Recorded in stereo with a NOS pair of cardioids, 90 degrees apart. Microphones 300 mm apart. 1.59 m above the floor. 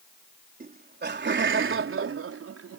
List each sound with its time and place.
0.6 s laughter: 30° right; by 2.8 s 55° right